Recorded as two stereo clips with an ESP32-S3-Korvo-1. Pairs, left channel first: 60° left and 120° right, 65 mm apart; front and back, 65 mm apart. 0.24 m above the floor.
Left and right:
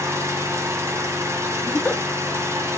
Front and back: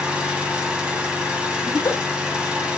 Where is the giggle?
5° right, 0.8 m.